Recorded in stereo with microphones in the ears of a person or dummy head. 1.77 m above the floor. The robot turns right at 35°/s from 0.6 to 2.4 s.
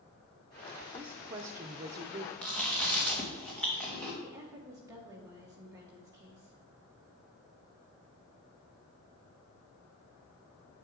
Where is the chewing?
5° left (ahead or behind), 2.5 m.